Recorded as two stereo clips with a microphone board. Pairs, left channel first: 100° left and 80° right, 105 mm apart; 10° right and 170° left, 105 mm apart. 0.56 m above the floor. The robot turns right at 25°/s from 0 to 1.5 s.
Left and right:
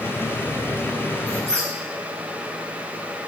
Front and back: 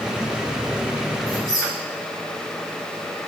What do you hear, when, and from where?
1.3 s a squeak: 100° left, 1.4 m; by 1.7 s 105° left, 1.4 m